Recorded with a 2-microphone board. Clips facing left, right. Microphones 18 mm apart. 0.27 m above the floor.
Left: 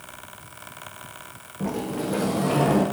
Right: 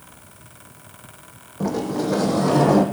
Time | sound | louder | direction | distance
1.6 | a sliding door | right 5 dB | 40° right (ahead or behind) | 3 m